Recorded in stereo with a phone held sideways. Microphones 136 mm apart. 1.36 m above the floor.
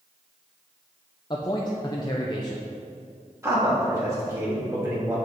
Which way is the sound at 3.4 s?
20° right (ahead or behind).